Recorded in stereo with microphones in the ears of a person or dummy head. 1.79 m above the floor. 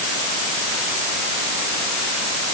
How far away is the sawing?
I don't hear sawing.